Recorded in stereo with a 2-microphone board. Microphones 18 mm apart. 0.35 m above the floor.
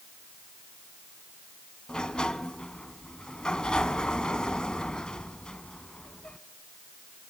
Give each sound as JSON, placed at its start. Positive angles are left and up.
{"t": 1.9, "sound": "a sliding door", "side_deg": 55, "distance_m": 1.1}